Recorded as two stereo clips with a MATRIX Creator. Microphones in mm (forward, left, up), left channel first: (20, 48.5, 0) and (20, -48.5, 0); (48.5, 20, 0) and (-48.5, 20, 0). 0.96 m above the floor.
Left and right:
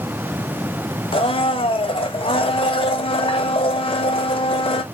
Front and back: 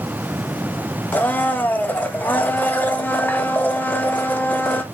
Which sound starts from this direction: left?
A blender, at 1.1 s.